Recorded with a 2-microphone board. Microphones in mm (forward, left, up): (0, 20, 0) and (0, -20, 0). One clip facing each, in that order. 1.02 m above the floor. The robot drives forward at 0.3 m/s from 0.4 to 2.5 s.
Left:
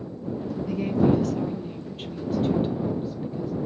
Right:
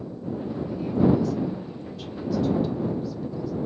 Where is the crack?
No crack in this recording.